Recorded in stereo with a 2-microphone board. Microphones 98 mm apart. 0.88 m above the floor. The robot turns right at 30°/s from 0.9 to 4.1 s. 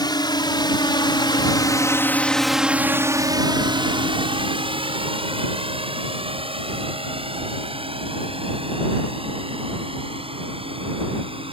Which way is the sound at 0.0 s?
45° left (ahead or behind).